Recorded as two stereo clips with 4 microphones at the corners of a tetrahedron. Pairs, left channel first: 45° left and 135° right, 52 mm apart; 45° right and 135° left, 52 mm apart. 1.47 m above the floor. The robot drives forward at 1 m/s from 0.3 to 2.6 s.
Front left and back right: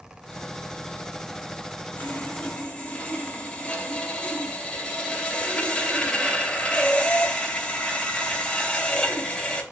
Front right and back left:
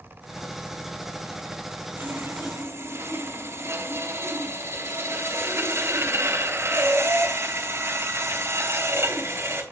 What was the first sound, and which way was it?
Sawing, 105° left.